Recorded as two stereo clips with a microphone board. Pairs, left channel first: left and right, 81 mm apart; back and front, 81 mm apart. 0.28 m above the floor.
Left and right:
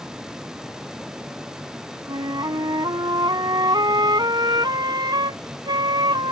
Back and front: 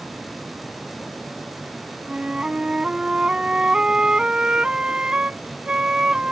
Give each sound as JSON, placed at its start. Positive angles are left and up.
{"t": 2.1, "sound": "a flute", "azimuth_deg": -75}